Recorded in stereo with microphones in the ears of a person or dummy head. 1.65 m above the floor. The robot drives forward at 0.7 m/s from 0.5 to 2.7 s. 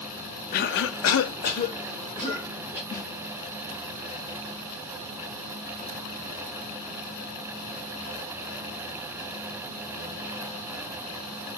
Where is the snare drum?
15° left (ahead or behind), 0.6 m.